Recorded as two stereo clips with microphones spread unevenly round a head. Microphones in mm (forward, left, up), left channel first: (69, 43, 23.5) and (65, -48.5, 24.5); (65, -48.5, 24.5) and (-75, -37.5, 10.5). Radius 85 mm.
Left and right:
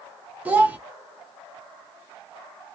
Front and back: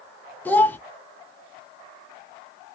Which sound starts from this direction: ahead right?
A child speaking, at 0.5 s.